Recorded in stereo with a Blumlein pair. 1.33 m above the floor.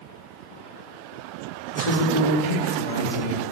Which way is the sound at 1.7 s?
70° left.